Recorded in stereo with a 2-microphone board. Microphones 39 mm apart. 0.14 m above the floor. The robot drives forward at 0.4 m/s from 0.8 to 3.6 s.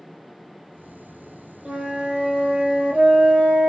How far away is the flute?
About 1.0 m.